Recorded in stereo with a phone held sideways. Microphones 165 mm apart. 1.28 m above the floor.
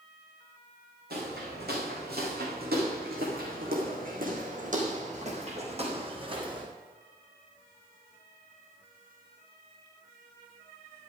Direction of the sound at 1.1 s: 75° right (ahead or behind).